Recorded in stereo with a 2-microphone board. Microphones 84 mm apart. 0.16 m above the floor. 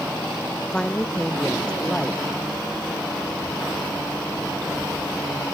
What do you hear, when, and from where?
0.7 s a woman speaking: 10° left (ahead or behind)